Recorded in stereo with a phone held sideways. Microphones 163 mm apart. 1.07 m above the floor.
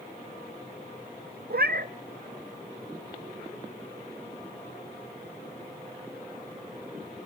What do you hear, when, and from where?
1.5 s a cat meowing: 75° right (ahead or behind), 0.8 m